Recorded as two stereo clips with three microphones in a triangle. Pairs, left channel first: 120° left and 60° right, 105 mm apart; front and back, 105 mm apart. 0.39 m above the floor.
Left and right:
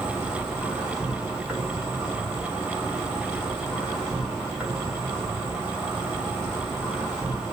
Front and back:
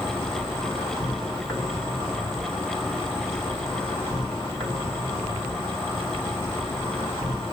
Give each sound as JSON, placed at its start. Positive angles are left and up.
{"t": 0.0, "sound": "an insect", "azimuth_deg": 40, "distance_m": 1.5}